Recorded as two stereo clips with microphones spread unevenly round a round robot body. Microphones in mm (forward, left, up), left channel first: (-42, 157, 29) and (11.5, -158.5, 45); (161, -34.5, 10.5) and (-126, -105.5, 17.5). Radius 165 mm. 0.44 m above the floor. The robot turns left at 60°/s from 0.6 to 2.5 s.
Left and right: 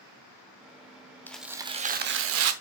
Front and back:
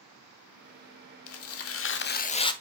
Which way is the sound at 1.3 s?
20° left.